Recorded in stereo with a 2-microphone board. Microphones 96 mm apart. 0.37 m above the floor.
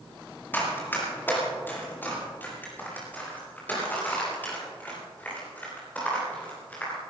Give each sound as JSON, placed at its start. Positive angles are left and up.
{"t": 0.5, "sound": "running footsteps", "side_deg": 20, "distance_m": 8.0}